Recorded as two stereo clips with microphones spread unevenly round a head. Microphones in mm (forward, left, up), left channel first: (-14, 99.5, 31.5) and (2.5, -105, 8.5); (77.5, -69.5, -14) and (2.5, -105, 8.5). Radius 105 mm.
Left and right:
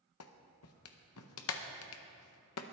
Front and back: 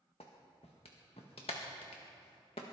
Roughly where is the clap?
Left.